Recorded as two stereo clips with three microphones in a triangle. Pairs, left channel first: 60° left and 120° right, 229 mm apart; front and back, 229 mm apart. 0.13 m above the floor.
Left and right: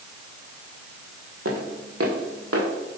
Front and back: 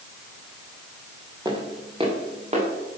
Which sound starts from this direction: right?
Footsteps, at 1.4 s.